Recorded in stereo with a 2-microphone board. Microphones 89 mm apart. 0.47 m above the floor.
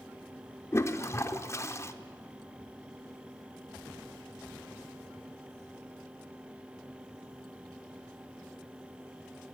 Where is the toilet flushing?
30° left (ahead or behind), 0.9 m.